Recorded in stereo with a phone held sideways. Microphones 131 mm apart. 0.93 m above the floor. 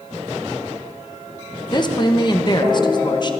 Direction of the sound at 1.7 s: 35° left (ahead or behind).